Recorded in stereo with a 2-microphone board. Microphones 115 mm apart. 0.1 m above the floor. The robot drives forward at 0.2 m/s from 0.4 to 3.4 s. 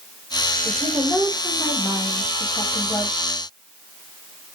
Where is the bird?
No bird in this recording.